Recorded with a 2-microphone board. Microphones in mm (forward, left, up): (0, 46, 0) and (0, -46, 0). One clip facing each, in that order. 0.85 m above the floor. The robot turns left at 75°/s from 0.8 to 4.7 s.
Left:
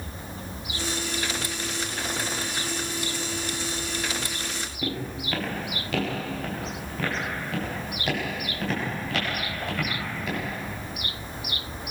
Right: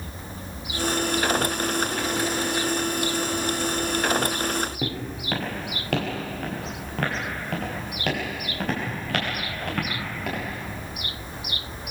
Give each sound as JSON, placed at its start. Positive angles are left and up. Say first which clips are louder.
{"t": 4.8, "sound": "footsteps", "louder": "right 1 dB", "side_deg": -65, "distance_m": 7.5}